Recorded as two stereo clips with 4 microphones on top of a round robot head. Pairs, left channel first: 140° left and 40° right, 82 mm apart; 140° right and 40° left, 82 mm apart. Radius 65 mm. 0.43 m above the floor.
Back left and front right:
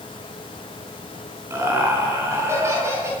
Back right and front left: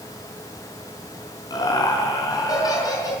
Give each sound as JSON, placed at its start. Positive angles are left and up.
{"t": 1.5, "sound": "laughter", "azimuth_deg": -95, "distance_m": 5.5}